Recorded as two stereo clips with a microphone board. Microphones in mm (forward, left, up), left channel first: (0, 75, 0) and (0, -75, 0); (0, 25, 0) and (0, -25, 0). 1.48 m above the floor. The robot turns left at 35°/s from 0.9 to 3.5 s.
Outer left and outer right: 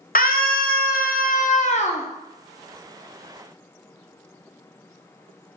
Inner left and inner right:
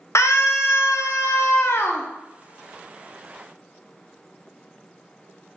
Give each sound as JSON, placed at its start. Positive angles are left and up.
{"t": 0.1, "sound": "a scream", "azimuth_deg": 85, "distance_m": 0.7}